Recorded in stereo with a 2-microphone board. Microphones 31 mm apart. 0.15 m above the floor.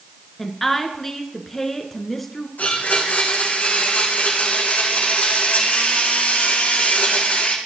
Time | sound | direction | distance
0.4 | a woman speaking | 5° left (ahead or behind) | 1.5 m
2.6 | a blender | 70° left (ahead or behind) | 3 m